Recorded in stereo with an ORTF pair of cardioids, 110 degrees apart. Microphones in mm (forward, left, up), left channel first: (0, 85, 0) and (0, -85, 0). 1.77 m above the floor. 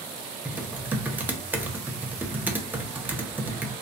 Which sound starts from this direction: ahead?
Typing on a keyboard, at 0.5 s.